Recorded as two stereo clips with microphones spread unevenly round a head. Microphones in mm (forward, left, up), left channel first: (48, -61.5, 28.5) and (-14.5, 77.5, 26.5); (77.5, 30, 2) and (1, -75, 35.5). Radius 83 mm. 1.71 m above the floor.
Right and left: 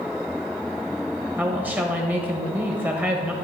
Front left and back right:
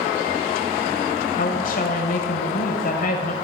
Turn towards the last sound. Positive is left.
turn(degrees=35)